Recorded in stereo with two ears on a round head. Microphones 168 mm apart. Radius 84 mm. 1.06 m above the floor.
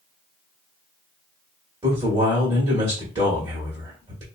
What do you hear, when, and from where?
1.8 s a man speaking: 20° right (ahead or behind), 1.2 m